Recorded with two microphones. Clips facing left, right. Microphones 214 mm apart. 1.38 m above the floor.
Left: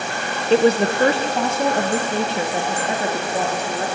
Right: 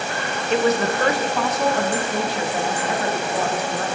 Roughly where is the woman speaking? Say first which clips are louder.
Left 4 dB; left.